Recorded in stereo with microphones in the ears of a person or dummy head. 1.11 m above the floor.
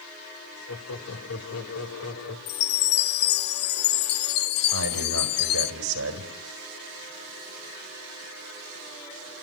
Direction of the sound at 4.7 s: 80° right.